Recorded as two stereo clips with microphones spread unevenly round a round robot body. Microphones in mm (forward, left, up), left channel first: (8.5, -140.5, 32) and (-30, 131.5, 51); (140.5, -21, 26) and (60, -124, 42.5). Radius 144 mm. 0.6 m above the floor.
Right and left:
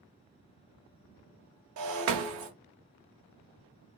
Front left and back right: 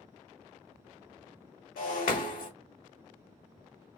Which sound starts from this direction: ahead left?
Breaking glass, at 1.8 s.